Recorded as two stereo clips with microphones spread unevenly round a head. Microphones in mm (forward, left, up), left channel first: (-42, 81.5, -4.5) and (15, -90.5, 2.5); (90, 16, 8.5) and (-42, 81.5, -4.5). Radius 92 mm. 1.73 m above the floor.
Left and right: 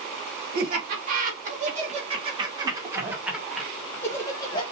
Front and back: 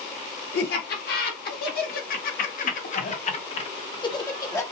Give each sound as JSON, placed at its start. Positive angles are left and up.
{"t": 0.5, "sound": "laughter", "azimuth_deg": -30, "distance_m": 2.0}